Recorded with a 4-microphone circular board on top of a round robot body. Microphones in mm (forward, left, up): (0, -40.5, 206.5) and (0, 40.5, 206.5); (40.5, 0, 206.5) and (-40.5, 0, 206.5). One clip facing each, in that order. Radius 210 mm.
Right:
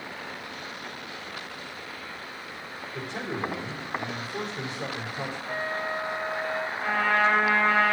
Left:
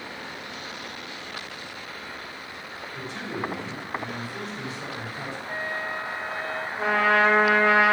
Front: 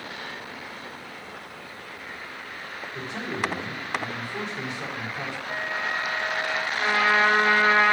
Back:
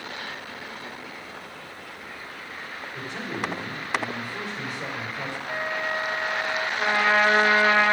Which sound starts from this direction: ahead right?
A man speaking, at 2.9 s.